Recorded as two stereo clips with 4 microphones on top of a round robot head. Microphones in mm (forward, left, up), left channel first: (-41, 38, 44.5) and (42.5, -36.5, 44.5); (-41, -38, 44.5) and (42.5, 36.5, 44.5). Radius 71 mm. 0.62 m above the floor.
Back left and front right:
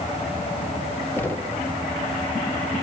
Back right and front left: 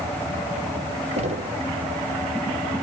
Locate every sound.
1.2 s knocking: 65° left, 1.2 m